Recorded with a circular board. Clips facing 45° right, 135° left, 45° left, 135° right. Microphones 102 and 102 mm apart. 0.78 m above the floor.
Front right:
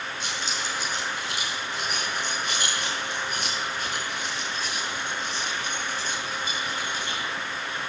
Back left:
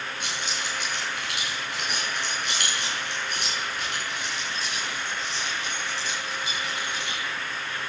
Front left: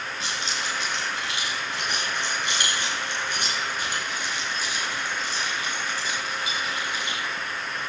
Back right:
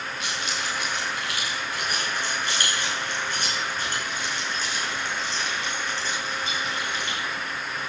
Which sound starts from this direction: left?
Keys jangling, at 0.2 s.